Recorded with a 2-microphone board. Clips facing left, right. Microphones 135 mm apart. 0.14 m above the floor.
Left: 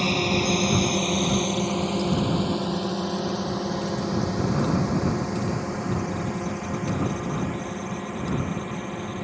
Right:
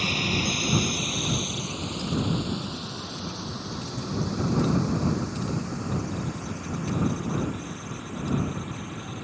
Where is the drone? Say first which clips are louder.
Left 5 dB; 40° left (ahead or behind); by 9.2 s 60° left (ahead or behind).